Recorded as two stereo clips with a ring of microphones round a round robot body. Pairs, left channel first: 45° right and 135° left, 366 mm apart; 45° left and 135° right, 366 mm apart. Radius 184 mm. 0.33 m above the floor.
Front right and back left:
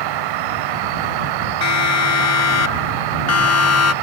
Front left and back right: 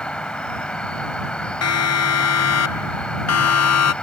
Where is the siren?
Straight ahead.